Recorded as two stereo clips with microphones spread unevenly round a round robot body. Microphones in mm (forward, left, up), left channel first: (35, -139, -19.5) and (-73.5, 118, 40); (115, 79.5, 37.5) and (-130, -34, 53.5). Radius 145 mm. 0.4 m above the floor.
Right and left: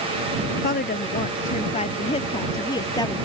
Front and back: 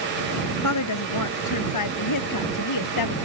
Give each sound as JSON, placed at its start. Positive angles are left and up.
{"t": 0.6, "sound": "a woman speaking", "azimuth_deg": -5}